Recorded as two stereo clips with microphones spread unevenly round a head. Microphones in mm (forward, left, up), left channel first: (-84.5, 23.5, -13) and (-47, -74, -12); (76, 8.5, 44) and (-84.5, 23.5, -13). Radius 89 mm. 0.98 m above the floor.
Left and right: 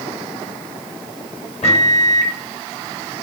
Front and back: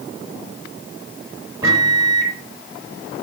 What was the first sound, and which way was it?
A microwave, 110° left.